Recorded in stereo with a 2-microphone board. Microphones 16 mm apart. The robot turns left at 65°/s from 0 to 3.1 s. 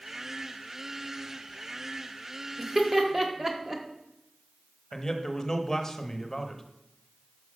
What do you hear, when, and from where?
2.6 s laughter: 20° right (ahead or behind), 1.2 m; by 3.8 s 30° right (ahead or behind), 1.2 m
4.9 s a man speaking: 25° left (ahead or behind), 1.0 m